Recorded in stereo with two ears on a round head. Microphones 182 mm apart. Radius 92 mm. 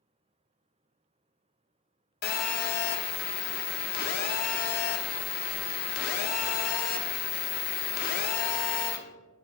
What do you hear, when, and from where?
2.2 s a phone buzzing: 50° left (ahead or behind), 0.7 m